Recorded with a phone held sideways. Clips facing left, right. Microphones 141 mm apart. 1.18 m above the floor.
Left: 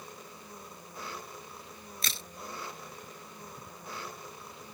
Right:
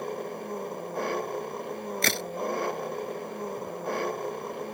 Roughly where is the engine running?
Right.